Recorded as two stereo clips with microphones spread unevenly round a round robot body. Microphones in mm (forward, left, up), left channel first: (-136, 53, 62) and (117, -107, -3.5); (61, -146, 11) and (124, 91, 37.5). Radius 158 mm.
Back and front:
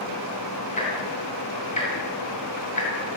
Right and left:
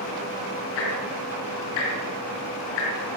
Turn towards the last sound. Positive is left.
turn(degrees=-140)